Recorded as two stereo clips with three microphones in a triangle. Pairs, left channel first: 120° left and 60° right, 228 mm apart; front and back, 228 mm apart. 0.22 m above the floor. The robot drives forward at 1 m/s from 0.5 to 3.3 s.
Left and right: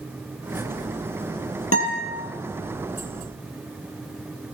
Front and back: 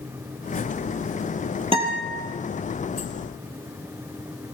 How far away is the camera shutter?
I don't hear a camera shutter.